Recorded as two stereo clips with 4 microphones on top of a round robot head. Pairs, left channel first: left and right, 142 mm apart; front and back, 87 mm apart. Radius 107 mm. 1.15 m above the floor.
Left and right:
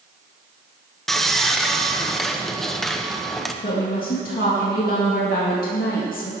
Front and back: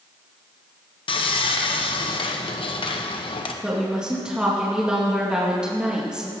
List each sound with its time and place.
1.1 s sawing: straight ahead, 1.2 m
3.6 s a woman speaking: 100° left, 2.5 m